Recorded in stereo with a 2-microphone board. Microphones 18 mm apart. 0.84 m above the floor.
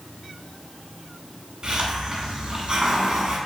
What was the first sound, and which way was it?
A hiss, 40° right (ahead or behind).